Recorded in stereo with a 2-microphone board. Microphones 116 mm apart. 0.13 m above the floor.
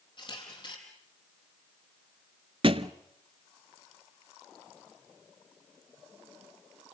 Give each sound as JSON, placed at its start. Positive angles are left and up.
{"t": 0.2, "sound": "a camera shutter", "side_deg": 45, "distance_m": 4.5}
{"t": 2.6, "sound": "a thud", "side_deg": -50, "distance_m": 0.6}